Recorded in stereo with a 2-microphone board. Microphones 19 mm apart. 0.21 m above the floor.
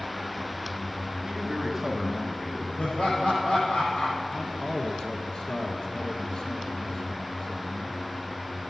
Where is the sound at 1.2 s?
35° right (ahead or behind), 1.6 m; by 2.7 s 10° left (ahead or behind), 2 m.